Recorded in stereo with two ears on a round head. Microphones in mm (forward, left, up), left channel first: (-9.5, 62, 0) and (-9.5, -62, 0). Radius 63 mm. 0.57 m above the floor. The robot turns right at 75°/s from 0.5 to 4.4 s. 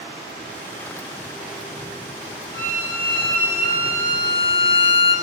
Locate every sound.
2.5 s a violin: 130° right, 2.5 m; by 5.2 s 15° left, 2.5 m